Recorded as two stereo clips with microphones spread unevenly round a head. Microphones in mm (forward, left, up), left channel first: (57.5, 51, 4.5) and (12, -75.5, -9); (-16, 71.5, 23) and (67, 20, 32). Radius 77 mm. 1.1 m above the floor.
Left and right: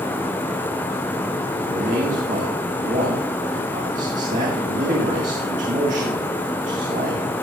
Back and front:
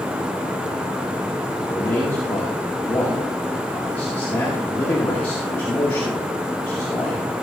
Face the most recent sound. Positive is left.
turn(degrees=-145)